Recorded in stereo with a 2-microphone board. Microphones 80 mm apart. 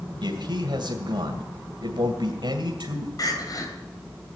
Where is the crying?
55° left (ahead or behind), 3 m.